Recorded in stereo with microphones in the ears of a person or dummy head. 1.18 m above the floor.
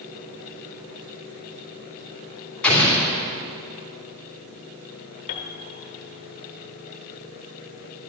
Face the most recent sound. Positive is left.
turn(degrees=35)  # may be behind; listen again after turning